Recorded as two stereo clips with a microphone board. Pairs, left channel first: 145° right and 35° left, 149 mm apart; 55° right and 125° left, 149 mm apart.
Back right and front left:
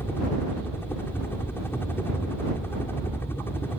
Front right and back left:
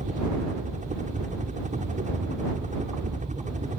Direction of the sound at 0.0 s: 140° left.